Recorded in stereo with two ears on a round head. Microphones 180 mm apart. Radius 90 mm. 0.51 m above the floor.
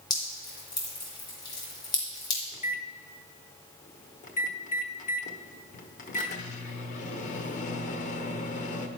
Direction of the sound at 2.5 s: 40° left (ahead or behind).